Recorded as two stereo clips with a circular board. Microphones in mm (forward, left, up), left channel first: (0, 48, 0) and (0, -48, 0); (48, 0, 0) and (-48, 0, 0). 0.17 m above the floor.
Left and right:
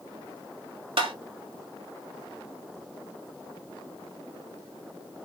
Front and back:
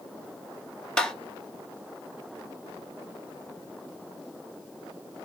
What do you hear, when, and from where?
1.0 s tapping: 80° right, 0.7 m